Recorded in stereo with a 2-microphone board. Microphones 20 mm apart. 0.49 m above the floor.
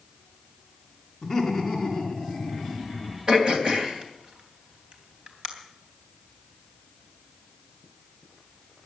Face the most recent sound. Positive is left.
turn(degrees=-45)  # may be behind; listen again after turning